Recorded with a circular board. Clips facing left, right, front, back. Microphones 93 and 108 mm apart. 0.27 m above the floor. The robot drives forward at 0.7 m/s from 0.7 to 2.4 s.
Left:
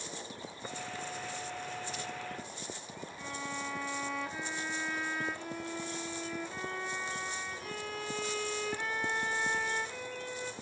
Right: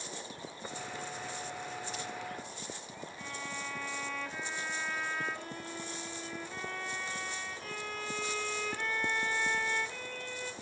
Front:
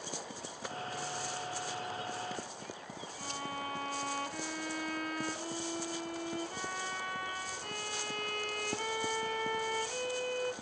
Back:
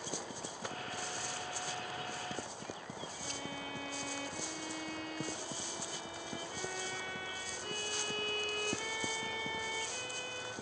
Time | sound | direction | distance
3.2 | a violin | 5° left | 1.7 m